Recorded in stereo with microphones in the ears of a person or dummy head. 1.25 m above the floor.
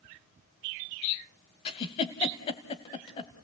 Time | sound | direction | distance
1.6 | a giggle | 30° left (ahead or behind) | 1.5 m